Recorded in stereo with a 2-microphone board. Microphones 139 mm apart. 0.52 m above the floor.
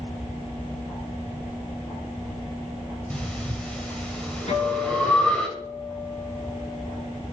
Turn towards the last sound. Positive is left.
turn(degrees=55)  # may be behind; listen again after turning